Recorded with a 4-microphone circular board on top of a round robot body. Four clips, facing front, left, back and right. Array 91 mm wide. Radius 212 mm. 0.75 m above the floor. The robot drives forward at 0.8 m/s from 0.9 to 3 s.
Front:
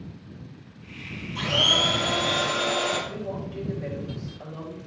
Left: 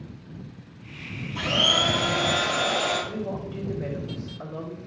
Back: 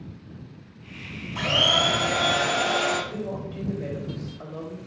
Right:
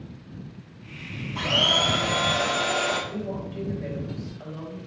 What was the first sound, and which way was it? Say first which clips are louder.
A blender: even, back 2 dB; 175° left.